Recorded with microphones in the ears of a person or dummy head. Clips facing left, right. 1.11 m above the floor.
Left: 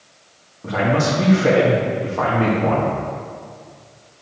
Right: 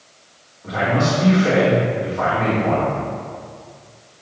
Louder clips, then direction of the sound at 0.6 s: Left 1 dB; 55° left (ahead or behind).